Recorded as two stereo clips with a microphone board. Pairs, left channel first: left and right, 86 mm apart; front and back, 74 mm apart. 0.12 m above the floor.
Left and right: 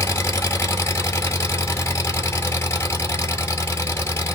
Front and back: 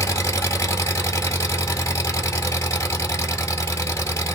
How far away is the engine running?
About 1.1 m.